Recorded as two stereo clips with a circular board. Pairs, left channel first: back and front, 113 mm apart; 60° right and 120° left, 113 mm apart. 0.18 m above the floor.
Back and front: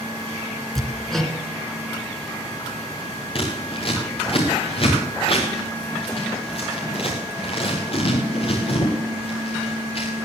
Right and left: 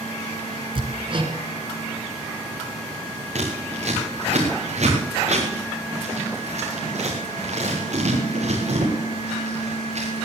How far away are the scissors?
About 4 m.